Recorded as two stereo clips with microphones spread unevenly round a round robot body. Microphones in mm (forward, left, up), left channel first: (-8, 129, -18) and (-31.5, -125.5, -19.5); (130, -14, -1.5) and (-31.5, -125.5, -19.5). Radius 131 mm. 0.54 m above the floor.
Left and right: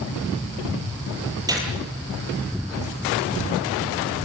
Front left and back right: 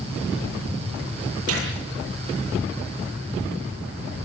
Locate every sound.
1.5 s a gunshot: 170° right, 9.5 m